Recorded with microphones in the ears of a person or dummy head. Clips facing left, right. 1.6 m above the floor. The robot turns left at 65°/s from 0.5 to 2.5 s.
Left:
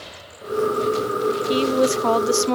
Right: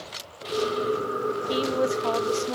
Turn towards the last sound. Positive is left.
turn(degrees=90)